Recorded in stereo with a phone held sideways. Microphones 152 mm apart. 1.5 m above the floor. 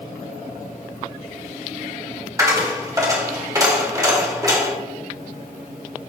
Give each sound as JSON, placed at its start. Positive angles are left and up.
{"t": 2.4, "sound": "a dropped coin", "side_deg": -20, "distance_m": 1.6}